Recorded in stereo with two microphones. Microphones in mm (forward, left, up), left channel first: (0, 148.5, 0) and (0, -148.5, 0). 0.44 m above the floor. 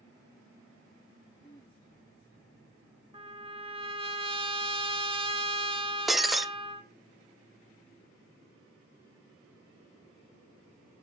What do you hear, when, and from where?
1.4 s throat clearing: 10° left (ahead or behind), 3.5 m
3.1 s a trumpet: 20° right (ahead or behind), 1.9 m
6.1 s breaking glass: centre (ahead or behind), 0.5 m